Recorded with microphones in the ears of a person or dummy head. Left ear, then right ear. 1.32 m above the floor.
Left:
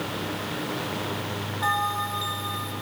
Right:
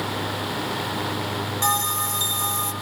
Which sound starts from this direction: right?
A bell, at 1.6 s.